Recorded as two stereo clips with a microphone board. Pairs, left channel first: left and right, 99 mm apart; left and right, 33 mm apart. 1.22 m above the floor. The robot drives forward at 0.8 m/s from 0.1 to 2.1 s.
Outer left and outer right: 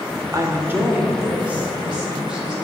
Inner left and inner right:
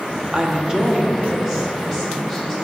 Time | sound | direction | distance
0.3 | a woman speaking | 30° right (ahead or behind) | 0.7 m